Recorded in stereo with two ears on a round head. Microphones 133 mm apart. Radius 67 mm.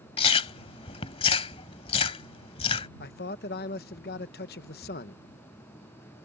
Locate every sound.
0.2 s chewing: 40° left (ahead or behind)
3.0 s a man speaking: 70° left (ahead or behind)